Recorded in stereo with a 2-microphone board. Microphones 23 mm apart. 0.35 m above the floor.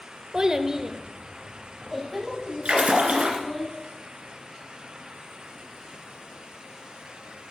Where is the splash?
80° right, 1.9 m.